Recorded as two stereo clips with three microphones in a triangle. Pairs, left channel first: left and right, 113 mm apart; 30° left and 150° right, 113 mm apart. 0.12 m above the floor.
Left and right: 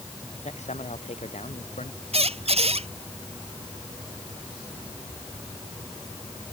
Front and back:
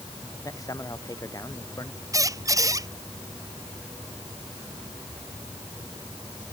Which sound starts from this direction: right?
A squeak, at 2.1 s.